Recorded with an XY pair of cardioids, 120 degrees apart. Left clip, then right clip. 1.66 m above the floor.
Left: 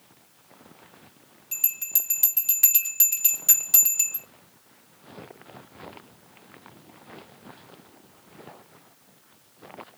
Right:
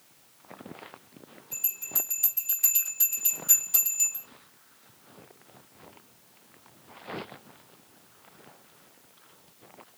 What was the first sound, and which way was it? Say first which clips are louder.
A bell: left 4 dB; 70° left.